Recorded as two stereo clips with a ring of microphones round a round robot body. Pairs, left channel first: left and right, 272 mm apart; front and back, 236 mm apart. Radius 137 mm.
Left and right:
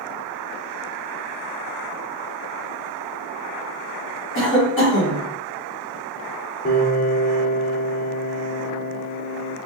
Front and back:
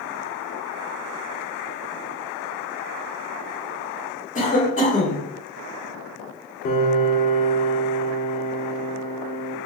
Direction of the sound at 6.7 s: 40° left.